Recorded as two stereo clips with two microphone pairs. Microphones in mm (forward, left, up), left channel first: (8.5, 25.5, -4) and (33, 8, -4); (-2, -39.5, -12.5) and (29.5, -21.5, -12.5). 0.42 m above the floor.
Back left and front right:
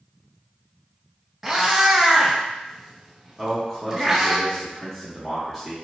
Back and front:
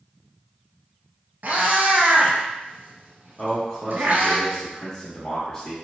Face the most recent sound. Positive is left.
turn(degrees=-140)